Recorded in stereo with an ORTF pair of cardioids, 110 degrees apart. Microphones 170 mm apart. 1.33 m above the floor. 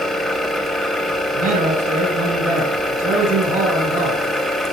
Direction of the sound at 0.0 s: Straight ahead.